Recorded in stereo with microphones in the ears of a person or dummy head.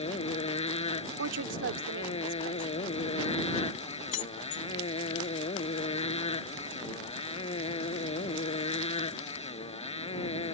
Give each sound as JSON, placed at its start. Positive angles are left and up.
{"t": 0.0, "sound": "a motorcycle", "side_deg": 35}
{"t": 1.2, "sound": "a woman speaking", "side_deg": -65}
{"t": 4.1, "sound": "keys jangling", "side_deg": 40}